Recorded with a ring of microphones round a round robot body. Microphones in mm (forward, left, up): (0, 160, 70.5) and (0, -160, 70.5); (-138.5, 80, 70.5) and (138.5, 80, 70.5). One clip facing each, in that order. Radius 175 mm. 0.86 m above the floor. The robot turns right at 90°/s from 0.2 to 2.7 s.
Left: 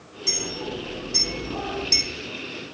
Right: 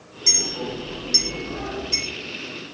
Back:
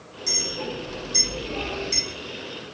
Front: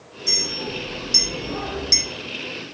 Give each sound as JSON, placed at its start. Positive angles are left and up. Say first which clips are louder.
{"t": 0.3, "sound": "a clink", "louder": "right 2 dB, front 1 dB", "azimuth_deg": -110, "distance_m": 0.6}